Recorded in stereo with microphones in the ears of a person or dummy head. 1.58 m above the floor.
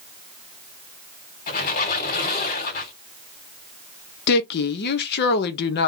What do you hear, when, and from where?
1.5 s a squeak: 50° left (ahead or behind), 2.5 m
4.3 s a woman speaking: 55° left (ahead or behind), 0.7 m